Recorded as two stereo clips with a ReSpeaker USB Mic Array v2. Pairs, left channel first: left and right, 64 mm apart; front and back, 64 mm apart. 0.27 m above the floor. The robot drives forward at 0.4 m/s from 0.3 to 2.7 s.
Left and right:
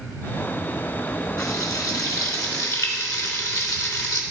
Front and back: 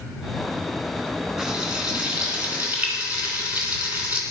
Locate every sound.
1.4 s frying: 100° left, 2.5 m; by 4.2 s 115° left, 3 m